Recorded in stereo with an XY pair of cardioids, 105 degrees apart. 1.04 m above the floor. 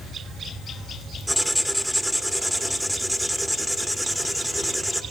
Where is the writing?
Straight ahead, 1.8 m.